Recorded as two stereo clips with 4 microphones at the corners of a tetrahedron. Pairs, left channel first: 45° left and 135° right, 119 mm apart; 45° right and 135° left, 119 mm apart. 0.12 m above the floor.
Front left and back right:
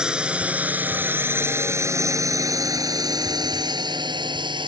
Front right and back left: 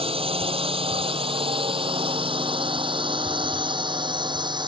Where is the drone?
145° left; by 4.7 s straight behind.